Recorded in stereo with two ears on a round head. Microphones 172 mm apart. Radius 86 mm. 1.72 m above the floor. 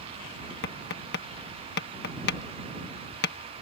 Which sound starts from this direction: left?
Tapping, at 0.6 s.